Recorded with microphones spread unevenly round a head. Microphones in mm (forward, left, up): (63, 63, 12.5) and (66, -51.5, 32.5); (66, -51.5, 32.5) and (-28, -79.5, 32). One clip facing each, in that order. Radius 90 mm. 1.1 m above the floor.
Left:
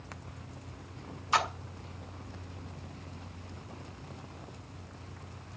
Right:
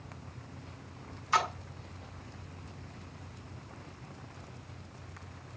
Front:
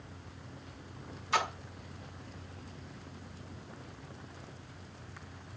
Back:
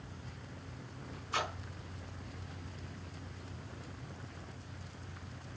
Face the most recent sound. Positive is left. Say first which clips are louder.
# even, front 5 dB
turn(degrees=20)